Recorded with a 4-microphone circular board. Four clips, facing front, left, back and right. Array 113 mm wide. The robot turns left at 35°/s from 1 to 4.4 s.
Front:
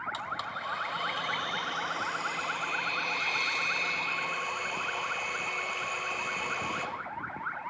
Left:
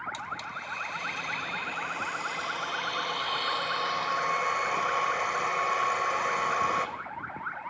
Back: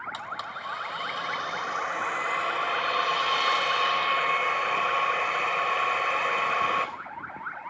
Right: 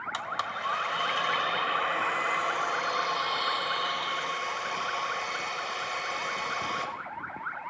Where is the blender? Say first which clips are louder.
Right 4 dB, even; 90° right, 4 m; by 6.9 s 150° left, 4 m.